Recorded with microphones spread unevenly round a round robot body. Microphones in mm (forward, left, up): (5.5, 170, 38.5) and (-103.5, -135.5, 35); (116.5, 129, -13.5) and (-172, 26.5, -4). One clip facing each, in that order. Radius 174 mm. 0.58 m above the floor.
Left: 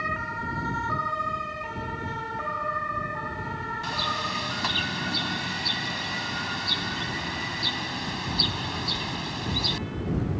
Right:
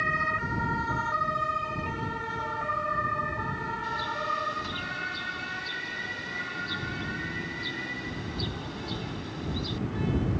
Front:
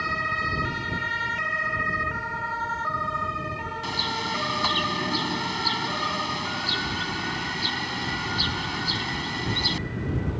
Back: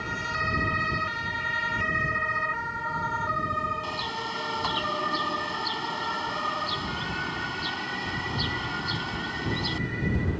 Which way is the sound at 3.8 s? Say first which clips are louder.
Left 2 dB, front 3 dB; 70° left.